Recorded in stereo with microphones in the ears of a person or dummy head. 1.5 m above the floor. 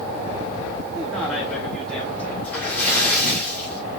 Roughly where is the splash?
Centre.